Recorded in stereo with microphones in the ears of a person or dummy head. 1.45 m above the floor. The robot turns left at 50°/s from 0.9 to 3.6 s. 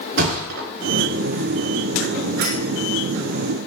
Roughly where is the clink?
Right.